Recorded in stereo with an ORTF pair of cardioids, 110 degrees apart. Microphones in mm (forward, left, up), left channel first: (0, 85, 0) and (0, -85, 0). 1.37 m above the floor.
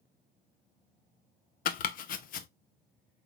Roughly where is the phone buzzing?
I don't hear a phone buzzing.